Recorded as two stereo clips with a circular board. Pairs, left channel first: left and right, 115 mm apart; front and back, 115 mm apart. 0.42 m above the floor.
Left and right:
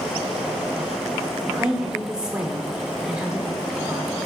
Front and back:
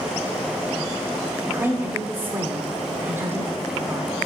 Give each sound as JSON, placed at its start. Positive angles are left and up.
{"t": 1.5, "sound": "a woman speaking", "azimuth_deg": -160, "distance_m": 1.1}